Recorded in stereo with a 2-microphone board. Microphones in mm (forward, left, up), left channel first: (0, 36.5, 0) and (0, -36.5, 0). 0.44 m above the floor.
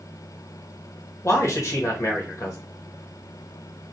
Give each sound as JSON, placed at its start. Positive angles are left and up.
{"t": 1.2, "sound": "a man speaking", "side_deg": 45, "distance_m": 1.3}